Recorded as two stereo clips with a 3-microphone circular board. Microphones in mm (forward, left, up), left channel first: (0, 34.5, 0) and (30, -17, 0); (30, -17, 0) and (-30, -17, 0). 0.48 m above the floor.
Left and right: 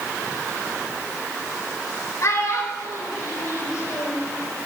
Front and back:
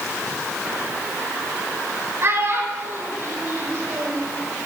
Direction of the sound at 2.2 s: 145° left.